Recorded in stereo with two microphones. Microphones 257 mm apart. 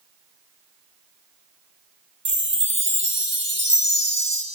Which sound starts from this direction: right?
A chime, at 2.2 s.